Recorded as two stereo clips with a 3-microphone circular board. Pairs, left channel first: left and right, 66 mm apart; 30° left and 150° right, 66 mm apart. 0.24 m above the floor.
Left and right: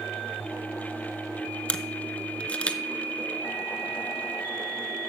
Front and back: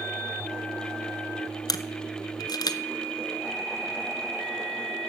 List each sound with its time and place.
1.7 s a camera shutter: 20° left, 0.6 m